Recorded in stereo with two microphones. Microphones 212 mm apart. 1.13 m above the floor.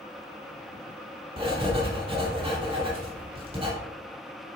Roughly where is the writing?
Right.